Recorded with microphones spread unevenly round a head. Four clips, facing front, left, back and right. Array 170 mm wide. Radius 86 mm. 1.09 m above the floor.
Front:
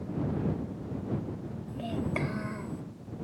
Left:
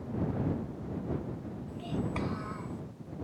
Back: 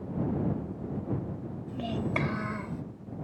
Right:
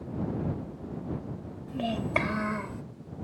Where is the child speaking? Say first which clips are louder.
Right 7 dB, back 1 dB; 90° right; by 2.8 s 100° right.